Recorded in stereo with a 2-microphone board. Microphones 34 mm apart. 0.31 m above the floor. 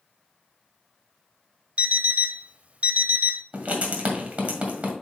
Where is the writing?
40° right (ahead or behind), 1.8 m.